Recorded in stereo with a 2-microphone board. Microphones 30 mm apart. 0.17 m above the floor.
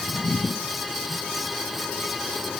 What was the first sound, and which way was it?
Only background noise.